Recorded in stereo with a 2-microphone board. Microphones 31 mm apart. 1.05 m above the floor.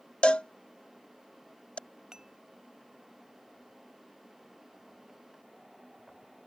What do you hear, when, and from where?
0.2 s a cowbell: 40° left (ahead or behind)
2.1 s dishes clattering: 20° right (ahead or behind)